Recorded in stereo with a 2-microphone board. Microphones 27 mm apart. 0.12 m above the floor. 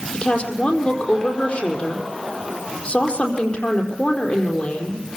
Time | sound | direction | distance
0.1 | a woman speaking | 50° left (ahead or behind) | 4.5 m